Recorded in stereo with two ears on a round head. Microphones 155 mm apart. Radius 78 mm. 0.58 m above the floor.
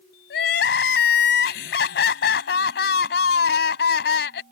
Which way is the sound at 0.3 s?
70° left (ahead or behind).